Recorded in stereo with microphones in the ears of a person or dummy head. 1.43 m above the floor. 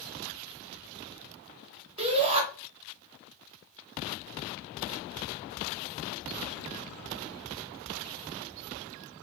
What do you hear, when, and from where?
2.0 s a shout: 30° right (ahead or behind), 1.1 m